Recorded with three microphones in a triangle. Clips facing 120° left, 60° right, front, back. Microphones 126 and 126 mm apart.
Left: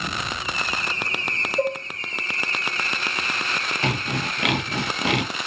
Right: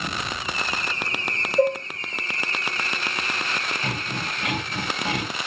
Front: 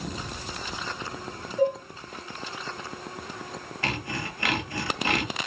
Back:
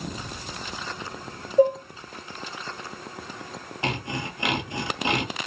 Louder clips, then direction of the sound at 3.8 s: Left 4 dB, back 3 dB; 110° left.